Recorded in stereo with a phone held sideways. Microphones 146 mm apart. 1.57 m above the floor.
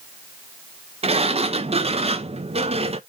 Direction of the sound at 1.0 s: 45° right (ahead or behind).